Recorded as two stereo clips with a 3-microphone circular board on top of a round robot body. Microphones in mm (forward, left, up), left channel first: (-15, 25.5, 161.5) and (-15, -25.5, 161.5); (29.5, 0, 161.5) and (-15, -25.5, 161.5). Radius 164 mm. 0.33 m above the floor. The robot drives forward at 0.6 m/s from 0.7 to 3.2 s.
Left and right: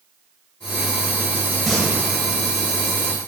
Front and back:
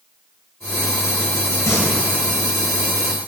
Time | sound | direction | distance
1.7 | singing | 5° left | 1.6 m